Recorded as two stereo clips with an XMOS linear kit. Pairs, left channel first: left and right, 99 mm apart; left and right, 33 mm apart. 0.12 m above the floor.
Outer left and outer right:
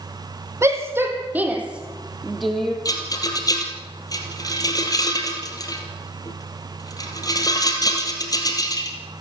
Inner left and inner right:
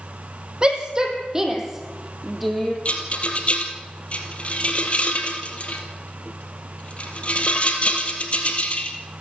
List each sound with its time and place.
0.6 s a shout: 30° right (ahead or behind), 4 m; by 2.8 s 5° left (ahead or behind), 3.5 m
2.9 s a rattle: 40° left (ahead or behind), 3 m